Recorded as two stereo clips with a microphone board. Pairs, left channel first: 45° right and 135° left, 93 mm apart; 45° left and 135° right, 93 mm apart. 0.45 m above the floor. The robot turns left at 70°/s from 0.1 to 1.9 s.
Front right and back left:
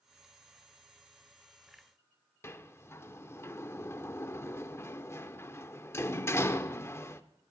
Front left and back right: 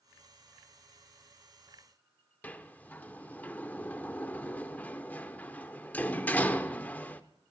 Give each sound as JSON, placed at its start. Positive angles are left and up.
{"t": 2.4, "sound": "a sliding door", "azimuth_deg": -10, "distance_m": 0.6}